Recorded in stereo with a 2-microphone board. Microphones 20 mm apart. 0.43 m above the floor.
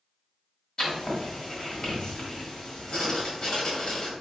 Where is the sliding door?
I don't hear a sliding door.